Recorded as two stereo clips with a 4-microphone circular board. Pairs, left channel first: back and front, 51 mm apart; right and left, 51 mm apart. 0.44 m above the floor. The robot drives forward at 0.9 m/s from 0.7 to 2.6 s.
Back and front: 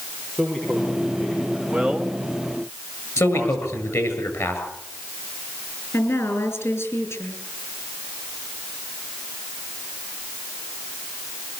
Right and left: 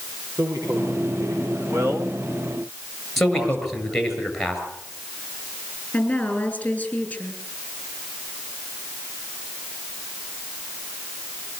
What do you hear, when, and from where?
0.3 s a man speaking: 100° left, 9.5 m; by 1.9 s 105° left, 9.5 m
1.7 s a man speaking: 80° left, 3 m; by 4.2 s 95° left, 3 m
3.2 s a man speaking: 175° right, 7.5 m
5.9 s a woman speaking: 155° right, 7 m